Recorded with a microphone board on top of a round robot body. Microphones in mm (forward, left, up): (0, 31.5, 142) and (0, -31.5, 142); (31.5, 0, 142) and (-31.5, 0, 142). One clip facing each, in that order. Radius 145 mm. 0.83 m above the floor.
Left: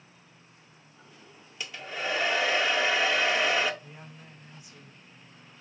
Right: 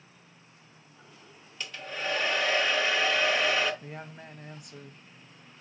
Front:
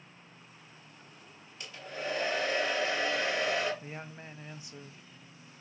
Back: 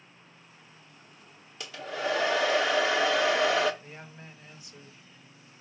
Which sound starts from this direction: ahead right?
A woman speaking, at 3.8 s.